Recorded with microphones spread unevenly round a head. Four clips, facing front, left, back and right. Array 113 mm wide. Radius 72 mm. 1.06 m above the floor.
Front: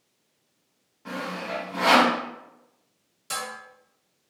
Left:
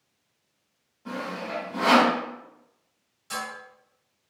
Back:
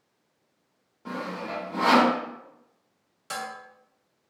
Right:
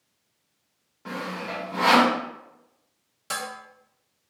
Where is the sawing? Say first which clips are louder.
Even, front 1 dB; 140° right, 1.0 m.